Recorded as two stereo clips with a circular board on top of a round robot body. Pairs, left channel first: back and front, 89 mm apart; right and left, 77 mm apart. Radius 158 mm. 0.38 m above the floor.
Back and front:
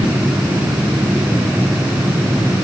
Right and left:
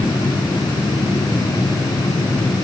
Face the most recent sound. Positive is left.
No sound to turn to.